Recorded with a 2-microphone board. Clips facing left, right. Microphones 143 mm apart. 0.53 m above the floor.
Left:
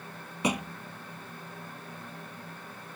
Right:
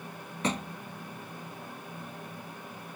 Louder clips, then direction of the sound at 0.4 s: Left 2 dB; 10° left (ahead or behind).